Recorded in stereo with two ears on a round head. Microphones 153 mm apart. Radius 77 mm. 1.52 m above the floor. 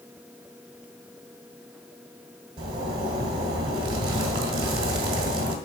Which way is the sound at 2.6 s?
30° right (ahead or behind).